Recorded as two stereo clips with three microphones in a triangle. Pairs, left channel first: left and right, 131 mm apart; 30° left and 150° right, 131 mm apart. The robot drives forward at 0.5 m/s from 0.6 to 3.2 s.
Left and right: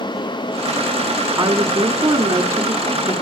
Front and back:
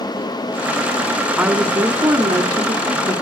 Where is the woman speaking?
80° right, 1.2 m; by 3.1 s 140° right, 1.4 m.